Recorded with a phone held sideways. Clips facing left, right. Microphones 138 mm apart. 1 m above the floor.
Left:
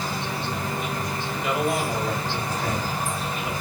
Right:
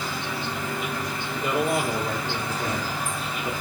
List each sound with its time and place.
0.0 s an insect: 40° left (ahead or behind), 1.1 m
1.3 s a man speaking: 45° right (ahead or behind), 1.1 m